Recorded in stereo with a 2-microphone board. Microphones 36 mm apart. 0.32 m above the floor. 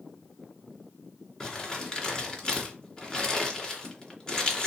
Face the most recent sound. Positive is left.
turn(degrees=25)  # may be behind; listen again after turning